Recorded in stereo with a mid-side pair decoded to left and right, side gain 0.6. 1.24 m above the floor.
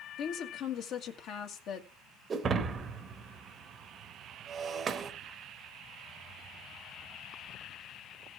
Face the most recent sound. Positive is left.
turn(degrees=-35)